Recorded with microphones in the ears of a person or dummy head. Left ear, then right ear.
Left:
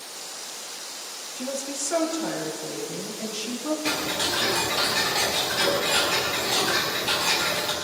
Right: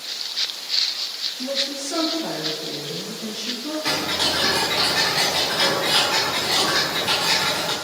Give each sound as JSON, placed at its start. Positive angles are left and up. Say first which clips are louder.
{"t": 1.4, "sound": "a woman speaking", "louder": "right 3 dB", "side_deg": 35, "distance_m": 3.0}
{"t": 3.9, "sound": "ticking", "louder": "right 6 dB", "side_deg": 0, "distance_m": 4.5}